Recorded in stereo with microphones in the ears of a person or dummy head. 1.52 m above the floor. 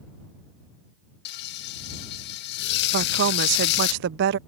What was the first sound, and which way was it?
Frying, 60° left (ahead or behind).